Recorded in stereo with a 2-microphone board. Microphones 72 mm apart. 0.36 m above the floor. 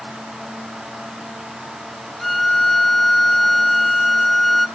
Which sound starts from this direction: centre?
A violin, at 2.2 s.